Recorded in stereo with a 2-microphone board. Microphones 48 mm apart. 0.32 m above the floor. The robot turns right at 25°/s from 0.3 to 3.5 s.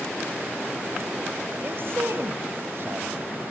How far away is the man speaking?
About 1.6 m.